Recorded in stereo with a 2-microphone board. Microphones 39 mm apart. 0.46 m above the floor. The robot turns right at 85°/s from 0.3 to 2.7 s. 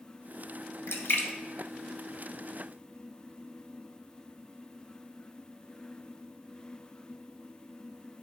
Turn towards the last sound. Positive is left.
turn(degrees=-60)  # may be behind; listen again after turning